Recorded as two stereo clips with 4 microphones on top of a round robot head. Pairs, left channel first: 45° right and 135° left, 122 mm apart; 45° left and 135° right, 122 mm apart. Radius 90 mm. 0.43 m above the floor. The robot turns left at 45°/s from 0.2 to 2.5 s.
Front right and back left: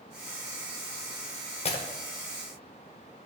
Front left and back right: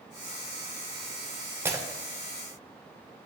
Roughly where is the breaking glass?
Ahead right.